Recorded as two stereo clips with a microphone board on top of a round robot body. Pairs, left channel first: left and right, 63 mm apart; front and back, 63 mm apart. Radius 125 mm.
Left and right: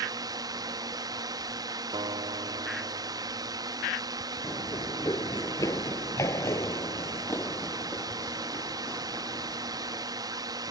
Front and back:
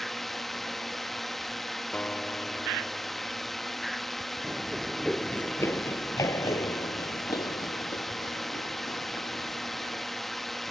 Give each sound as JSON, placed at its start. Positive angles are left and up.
{"t": 0.0, "sound": "a drone", "azimuth_deg": -85}
{"t": 1.9, "sound": "a guitar", "azimuth_deg": -75}
{"t": 4.4, "sound": "running footsteps", "azimuth_deg": 120}